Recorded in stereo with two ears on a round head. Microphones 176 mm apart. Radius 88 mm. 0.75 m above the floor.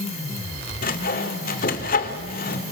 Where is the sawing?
45° left (ahead or behind), 2 m.